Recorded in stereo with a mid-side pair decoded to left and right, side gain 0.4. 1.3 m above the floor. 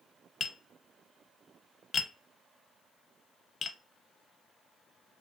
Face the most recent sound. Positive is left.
turn(degrees=50)